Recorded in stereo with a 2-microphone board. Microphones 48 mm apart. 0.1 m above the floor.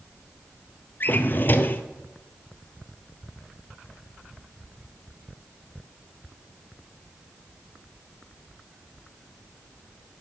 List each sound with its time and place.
1.0 s a drawer: 45° left (ahead or behind), 0.6 m